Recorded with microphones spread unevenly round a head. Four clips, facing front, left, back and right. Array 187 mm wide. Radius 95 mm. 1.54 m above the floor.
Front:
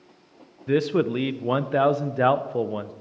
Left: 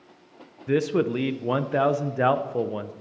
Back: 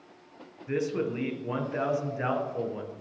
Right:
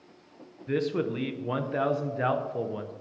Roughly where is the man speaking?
Ahead left.